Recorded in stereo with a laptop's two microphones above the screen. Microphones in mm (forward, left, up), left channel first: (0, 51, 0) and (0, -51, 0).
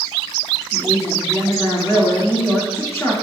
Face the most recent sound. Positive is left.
turn(degrees=25)  # may be behind; listen again after turning